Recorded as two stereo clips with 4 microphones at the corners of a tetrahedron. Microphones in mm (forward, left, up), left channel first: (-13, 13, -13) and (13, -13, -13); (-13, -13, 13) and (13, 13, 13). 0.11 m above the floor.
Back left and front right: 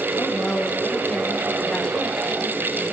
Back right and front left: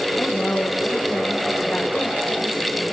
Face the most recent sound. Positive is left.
turn(degrees=175)